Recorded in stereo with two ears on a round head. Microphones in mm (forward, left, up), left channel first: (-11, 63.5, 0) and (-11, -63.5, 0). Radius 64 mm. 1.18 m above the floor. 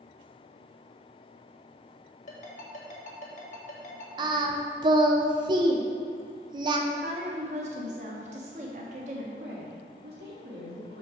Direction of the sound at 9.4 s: 85° right.